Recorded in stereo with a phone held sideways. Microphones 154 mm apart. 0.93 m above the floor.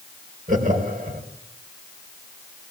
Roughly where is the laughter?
Right.